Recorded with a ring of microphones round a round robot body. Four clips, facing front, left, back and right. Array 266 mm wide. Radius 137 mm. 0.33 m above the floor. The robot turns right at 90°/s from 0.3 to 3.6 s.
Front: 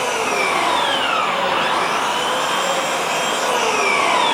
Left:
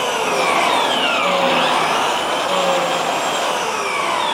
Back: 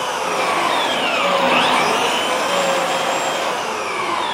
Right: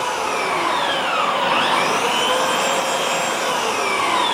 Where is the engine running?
60° left, 7 m; by 4.3 s 5° right, 7 m.